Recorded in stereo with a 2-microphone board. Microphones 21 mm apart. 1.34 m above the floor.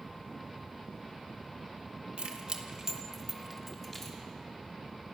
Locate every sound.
2.2 s keys jangling: 55° right (ahead or behind), 1.6 m; by 4.2 s 20° left (ahead or behind), 3 m